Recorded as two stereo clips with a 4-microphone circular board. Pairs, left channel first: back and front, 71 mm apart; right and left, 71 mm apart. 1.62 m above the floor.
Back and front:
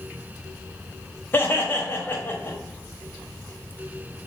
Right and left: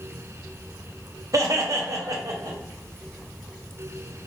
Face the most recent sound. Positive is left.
turn(degrees=125)